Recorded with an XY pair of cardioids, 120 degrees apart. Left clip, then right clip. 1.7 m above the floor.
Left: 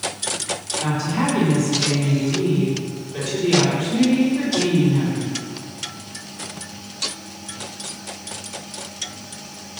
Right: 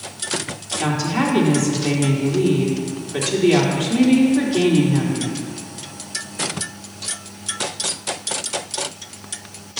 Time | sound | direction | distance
0.8 | a woman speaking | 45° right | 4 m